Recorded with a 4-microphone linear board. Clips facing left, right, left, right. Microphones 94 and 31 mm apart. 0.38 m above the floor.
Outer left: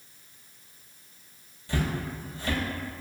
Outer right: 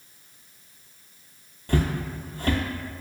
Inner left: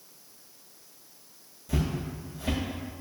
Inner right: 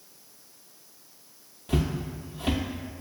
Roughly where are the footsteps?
Right.